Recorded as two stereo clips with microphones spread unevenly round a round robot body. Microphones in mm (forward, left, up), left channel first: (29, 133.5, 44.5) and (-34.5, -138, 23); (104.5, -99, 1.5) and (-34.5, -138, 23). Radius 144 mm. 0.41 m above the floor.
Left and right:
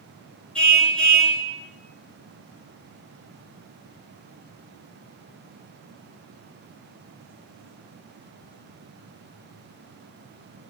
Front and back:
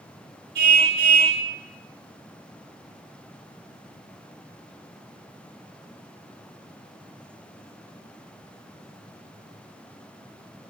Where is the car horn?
165° left, 3 m.